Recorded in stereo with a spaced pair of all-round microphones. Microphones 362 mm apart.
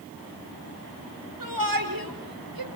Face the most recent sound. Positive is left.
turn(degrees=-75)  # may be behind; listen again after turning